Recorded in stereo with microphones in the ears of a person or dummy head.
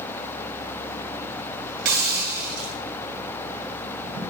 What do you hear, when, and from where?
1.9 s a hiss: 60° right (ahead or behind), 4 m